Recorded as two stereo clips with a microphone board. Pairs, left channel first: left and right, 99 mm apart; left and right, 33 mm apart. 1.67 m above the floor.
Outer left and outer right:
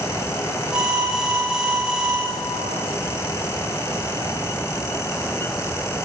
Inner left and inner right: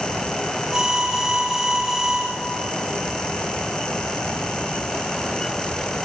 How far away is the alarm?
About 9.5 m.